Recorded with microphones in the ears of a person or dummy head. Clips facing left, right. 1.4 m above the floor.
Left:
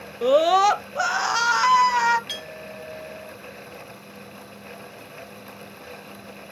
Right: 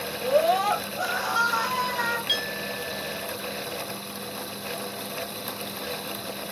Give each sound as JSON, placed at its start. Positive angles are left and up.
{"t": 0.2, "sound": "a scream", "side_deg": 45, "distance_m": 0.5}
{"t": 2.3, "sound": "a clink", "side_deg": 0, "distance_m": 2.5}